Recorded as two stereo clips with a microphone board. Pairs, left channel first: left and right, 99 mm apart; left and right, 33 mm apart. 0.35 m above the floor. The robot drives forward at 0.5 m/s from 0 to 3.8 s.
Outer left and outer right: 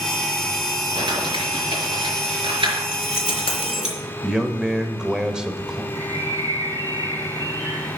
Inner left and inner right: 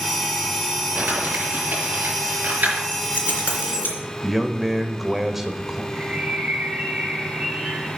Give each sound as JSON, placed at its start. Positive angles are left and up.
{"t": 0.9, "sound": "crumpling", "side_deg": -55, "distance_m": 5.0}
{"t": 2.9, "sound": "keys jangling", "side_deg": 75, "distance_m": 3.0}
{"t": 4.2, "sound": "a man speaking", "side_deg": -5, "distance_m": 1.0}
{"t": 5.9, "sound": "a bird", "side_deg": -45, "distance_m": 4.0}